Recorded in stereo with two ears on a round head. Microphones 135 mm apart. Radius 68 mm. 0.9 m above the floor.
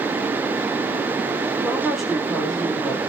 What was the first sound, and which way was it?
A woman speaking, centre (ahead or behind).